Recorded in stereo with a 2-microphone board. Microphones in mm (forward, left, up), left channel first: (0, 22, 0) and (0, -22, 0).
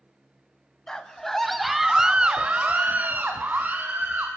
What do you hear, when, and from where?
0.9 s a scream: 15° left (ahead or behind), 1.9 m; by 4.3 s 40° right (ahead or behind), 2.5 m